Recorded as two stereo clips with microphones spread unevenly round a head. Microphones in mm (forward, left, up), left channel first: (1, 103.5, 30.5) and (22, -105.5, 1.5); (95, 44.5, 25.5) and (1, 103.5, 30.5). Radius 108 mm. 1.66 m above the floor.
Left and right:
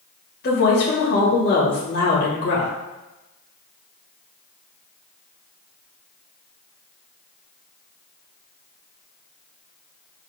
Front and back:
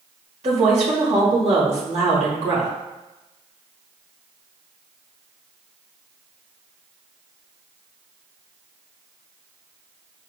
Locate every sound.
0.4 s a woman speaking: 135° left, 1.4 m